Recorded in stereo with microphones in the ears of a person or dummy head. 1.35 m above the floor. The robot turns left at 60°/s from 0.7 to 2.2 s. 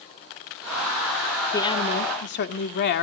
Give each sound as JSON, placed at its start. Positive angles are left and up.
{"t": 1.5, "sound": "a woman speaking", "azimuth_deg": 170, "distance_m": 1.9}